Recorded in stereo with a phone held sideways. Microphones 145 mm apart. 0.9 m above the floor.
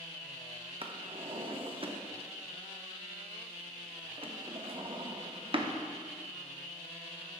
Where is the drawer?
40° right (ahead or behind), 0.5 m.